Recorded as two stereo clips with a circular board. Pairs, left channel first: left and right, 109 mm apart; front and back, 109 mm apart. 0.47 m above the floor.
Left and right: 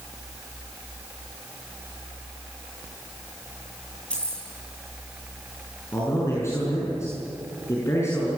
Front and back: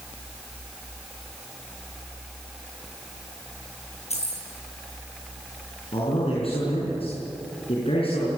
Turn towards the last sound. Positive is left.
turn(degrees=25)